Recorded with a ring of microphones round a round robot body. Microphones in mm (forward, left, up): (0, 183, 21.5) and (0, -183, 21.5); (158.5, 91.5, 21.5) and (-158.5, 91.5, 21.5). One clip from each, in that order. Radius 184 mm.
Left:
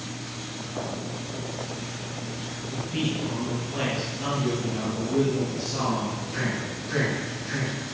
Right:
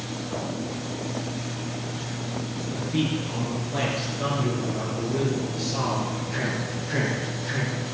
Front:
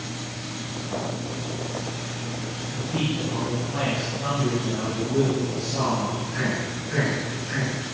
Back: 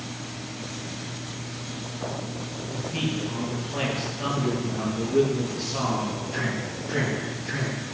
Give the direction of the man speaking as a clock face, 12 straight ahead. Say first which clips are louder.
Right 2 dB, front 1 dB; 3 o'clock.